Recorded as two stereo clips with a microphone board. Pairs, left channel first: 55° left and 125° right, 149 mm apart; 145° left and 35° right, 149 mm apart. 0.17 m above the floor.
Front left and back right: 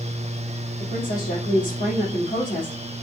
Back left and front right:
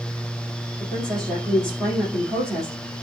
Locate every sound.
0.8 s a woman speaking: 30° left, 5 m